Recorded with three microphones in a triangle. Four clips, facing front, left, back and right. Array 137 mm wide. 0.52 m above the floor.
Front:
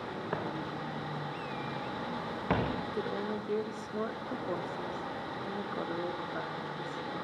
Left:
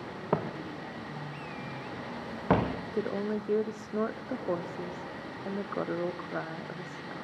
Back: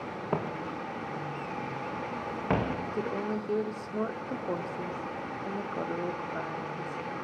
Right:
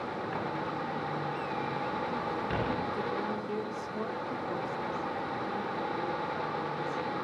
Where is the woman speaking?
100° left, 0.9 m.